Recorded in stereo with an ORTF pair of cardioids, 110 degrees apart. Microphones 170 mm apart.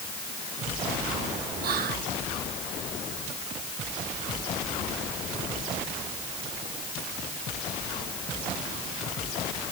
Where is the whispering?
65° right, 1.3 m.